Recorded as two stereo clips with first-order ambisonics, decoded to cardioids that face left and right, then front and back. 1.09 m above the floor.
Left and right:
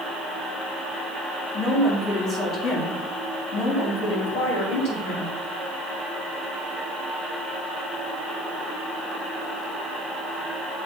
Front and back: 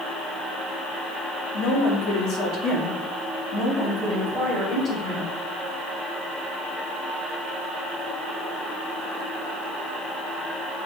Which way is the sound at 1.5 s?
20° left.